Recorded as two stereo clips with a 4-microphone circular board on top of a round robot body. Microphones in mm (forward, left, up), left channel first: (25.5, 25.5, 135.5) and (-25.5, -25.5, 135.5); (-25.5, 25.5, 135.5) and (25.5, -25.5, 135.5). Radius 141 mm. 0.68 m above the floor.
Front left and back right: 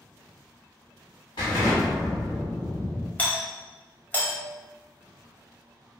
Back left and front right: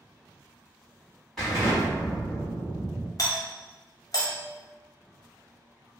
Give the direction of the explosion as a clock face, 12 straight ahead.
10 o'clock.